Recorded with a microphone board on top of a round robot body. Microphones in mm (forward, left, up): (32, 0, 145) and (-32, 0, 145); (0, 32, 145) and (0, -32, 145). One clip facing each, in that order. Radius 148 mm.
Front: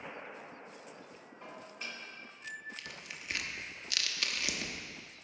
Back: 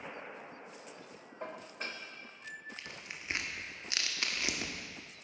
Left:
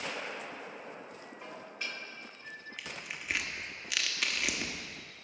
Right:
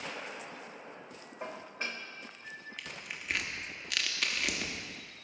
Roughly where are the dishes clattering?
Behind right.